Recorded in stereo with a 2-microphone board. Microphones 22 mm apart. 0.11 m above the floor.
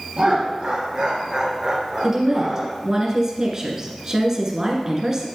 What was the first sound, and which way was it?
Laughter, 55° right (ahead or behind).